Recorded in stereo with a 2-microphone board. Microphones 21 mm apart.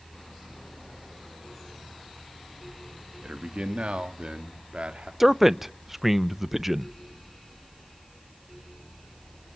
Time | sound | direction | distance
3.2 | a man speaking | 70° right (ahead or behind) | 2.5 m
5.2 | a man speaking | 10° right (ahead or behind) | 0.6 m